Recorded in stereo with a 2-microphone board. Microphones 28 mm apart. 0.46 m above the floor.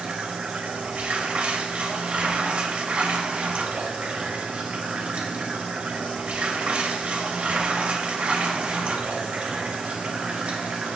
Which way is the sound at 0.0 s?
50° right (ahead or behind).